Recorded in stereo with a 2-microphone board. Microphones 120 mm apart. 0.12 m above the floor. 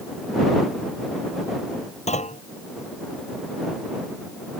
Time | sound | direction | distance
2.1 | a clunk | 70° left (ahead or behind) | ?